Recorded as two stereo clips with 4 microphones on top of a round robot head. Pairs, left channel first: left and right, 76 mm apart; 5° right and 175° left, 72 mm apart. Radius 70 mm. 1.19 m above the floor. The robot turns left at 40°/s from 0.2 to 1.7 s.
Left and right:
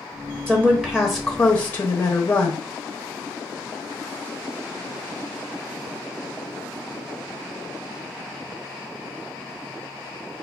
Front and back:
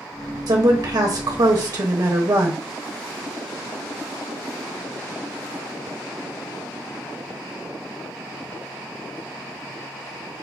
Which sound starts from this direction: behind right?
A woman speaking, at 0.5 s.